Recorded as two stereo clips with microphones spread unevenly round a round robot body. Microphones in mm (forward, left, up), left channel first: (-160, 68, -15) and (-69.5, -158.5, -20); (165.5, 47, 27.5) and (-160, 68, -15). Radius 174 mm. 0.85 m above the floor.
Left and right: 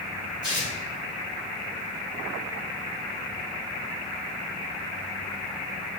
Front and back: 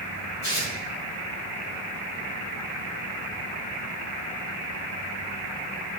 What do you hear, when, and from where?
0.4 s tearing paper: 35° left, 3 m